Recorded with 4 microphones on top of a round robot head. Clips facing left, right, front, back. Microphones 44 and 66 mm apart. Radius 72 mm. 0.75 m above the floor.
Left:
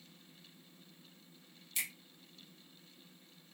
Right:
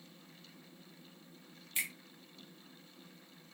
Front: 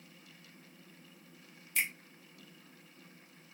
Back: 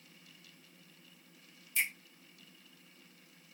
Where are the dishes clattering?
No dishes clattering in this recording.